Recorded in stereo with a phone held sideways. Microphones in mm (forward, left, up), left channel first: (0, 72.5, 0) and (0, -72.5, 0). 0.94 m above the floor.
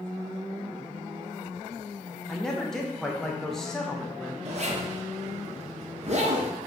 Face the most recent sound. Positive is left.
turn(degrees=-50)  # may be behind; listen again after turning